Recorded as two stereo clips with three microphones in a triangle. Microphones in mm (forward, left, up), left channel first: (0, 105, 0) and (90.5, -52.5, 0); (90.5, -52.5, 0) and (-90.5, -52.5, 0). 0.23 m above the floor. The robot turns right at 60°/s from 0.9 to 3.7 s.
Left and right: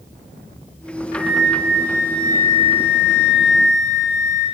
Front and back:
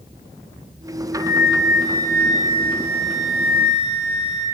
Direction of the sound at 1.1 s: 5° right.